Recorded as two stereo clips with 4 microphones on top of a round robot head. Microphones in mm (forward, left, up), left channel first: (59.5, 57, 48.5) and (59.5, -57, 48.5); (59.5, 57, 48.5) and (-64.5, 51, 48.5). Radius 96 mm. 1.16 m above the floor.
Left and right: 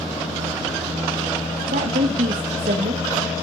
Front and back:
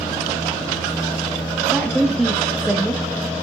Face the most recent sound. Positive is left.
turn(degrees=-90)